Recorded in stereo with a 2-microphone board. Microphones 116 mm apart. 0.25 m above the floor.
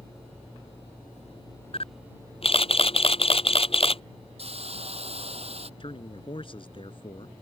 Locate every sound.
1.7 s a camera shutter: 55° left (ahead or behind)
4.4 s a hiss: 60° right (ahead or behind)
5.8 s a man speaking: 50° left (ahead or behind)